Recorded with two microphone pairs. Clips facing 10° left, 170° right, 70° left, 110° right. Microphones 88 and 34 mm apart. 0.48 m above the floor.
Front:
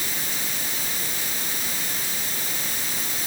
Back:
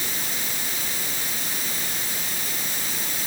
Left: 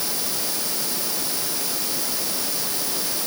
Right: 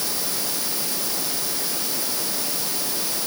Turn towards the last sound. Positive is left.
No sound to turn to.